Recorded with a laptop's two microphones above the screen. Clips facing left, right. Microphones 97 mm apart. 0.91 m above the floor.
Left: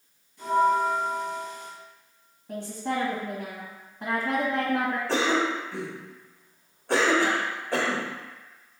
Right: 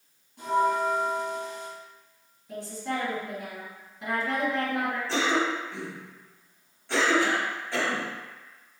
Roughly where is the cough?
Left.